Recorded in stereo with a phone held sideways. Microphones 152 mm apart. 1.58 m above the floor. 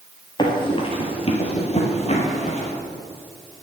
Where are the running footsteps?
30° left (ahead or behind), 2 m; by 2.7 s 45° left (ahead or behind), 2.5 m.